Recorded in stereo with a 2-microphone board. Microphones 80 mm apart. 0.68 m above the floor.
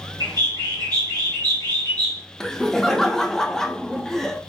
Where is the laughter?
5° left (ahead or behind), 0.6 m.